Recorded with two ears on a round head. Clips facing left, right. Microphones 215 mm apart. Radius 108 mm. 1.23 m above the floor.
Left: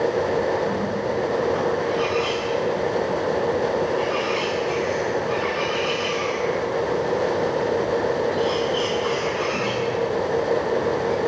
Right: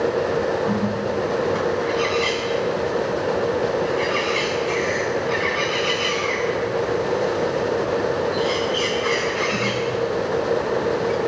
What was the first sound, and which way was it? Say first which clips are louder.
A bird: right 2 dB; 30° right (ahead or behind).